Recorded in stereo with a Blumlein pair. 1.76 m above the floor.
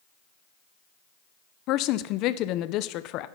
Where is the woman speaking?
40° left, 0.6 m.